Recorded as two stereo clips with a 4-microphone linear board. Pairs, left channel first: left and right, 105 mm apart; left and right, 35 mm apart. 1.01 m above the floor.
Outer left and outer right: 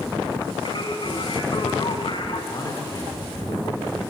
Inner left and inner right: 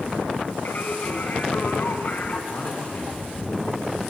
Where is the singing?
50° left (ahead or behind), 2.5 m.